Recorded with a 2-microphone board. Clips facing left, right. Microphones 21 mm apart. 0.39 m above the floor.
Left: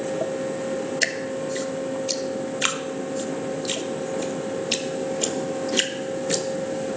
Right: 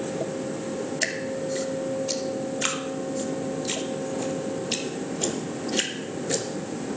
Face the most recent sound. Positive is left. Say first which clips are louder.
# left 1 dB
turn(degrees=25)  # may be behind; listen again after turning